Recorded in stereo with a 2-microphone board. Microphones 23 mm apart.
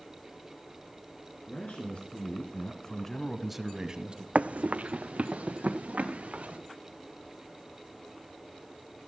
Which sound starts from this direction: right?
Running footsteps, at 4.3 s.